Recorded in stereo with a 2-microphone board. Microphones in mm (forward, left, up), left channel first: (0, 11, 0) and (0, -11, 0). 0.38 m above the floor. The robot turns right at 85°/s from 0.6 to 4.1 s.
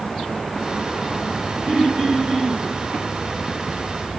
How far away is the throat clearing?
About 8.5 m.